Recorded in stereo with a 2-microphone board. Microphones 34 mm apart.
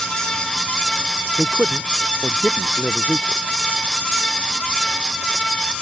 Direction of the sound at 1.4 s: 50° right (ahead or behind).